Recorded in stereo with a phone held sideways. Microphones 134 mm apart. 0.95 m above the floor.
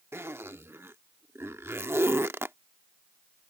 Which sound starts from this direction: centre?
A zipper, at 0.1 s.